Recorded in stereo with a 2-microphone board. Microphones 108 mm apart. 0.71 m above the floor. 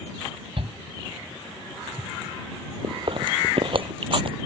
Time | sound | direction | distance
0.6 | a shout | 60° right (ahead or behind) | ?
2.8 | chewing | 55° right (ahead or behind) | ?